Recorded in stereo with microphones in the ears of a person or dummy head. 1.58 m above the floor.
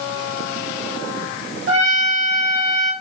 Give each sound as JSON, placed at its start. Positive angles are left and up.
{"t": 1.7, "sound": "a trumpet", "side_deg": -80, "distance_m": 3.0}